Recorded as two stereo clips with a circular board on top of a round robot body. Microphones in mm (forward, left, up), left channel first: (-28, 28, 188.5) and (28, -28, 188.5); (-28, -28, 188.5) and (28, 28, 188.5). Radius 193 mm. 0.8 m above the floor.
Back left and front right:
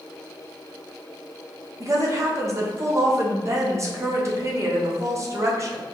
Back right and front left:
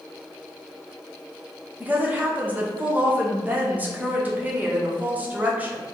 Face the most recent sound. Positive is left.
turn(degrees=-15)